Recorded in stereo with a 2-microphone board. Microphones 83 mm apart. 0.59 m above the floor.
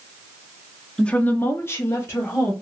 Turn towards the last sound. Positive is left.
turn(degrees=30)  # may be behind; listen again after turning